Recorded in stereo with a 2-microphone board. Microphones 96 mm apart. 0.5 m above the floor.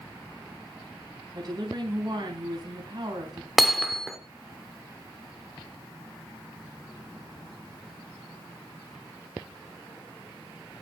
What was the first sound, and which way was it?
A woman speaking, 45° right (ahead or behind).